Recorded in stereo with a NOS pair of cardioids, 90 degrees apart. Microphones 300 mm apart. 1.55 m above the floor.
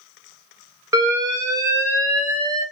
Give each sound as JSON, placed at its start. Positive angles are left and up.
{"t": 0.9, "sound": "an alarm", "azimuth_deg": -10, "distance_m": 1.4}